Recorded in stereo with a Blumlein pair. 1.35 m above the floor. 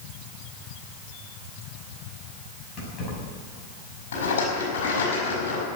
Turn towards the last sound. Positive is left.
turn(degrees=60)